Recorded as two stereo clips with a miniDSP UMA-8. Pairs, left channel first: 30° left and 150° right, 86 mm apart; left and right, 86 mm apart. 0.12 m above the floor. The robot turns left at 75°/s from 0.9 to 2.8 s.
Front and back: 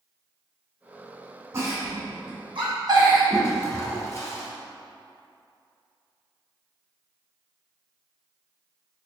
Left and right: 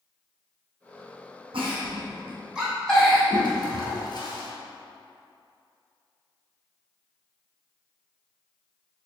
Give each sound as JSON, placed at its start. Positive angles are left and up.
{"t": 1.5, "sound": "a giggle", "azimuth_deg": -90, "distance_m": 2.0}
{"t": 3.3, "sound": "a toilet flushing", "azimuth_deg": 80, "distance_m": 0.8}